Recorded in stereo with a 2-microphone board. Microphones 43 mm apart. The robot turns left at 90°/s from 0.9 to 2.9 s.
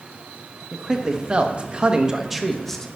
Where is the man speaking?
15° right (ahead or behind), 1.0 m; by 2.9 s 15° left (ahead or behind), 1.0 m.